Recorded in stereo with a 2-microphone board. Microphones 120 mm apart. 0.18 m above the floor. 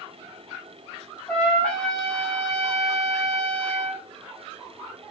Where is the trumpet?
10° left (ahead or behind), 4.5 m.